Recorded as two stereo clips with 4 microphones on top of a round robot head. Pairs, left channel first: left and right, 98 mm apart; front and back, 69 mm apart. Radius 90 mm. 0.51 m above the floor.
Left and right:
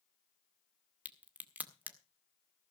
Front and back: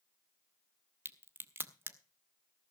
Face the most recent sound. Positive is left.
turn(degrees=-155)